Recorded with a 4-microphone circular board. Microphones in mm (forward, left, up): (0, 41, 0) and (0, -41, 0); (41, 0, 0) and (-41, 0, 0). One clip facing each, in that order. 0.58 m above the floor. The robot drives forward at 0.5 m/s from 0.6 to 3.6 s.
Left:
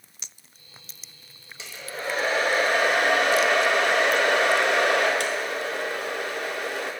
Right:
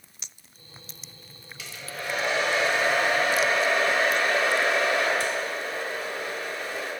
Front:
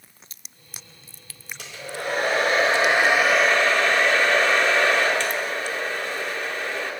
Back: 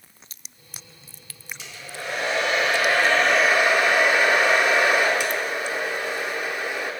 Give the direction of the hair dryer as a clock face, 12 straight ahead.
11 o'clock.